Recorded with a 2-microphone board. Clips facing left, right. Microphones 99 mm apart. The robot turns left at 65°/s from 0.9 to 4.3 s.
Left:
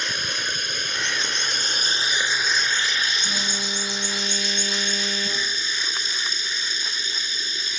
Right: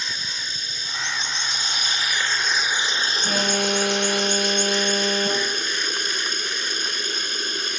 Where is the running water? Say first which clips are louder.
Left 5 dB; 105° left; by 7.8 s 115° right.